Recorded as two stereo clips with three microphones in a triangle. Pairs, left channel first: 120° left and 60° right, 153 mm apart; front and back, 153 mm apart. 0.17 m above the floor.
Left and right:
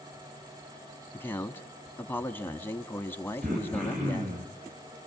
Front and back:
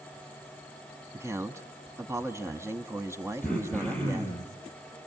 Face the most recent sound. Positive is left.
turn(degrees=-85)